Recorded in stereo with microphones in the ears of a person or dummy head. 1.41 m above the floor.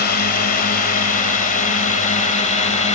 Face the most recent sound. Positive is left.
turn(degrees=35)  # may be behind; listen again after turning